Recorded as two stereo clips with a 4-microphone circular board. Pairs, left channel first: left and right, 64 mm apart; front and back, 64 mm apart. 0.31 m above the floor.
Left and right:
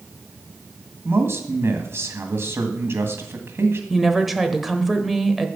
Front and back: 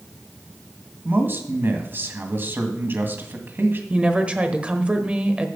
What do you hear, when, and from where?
1.1 s a man speaking: 130° right, 1.7 m
3.9 s a woman speaking: 175° right, 1.0 m